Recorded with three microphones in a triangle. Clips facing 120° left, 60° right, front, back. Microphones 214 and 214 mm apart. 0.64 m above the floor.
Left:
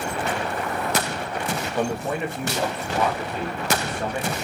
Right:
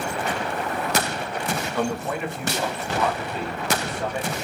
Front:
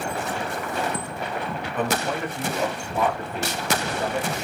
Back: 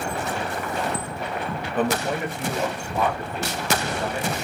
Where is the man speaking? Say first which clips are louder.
Left 2 dB, back 2 dB; 175° right, 0.6 m; by 4.3 s 60° left, 1.9 m.